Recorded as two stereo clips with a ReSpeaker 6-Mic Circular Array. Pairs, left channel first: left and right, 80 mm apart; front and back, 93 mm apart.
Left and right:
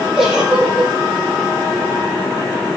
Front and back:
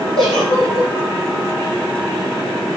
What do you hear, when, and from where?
0.2 s a giggle: 5° right, 6.5 m